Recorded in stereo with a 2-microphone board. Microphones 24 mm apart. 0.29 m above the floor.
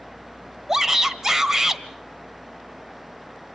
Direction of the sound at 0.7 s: 20° right (ahead or behind).